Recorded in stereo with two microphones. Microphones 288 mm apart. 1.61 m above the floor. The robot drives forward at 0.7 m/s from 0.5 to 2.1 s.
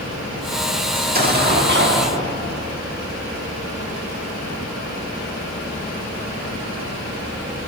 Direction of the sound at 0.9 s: 30° right (ahead or behind).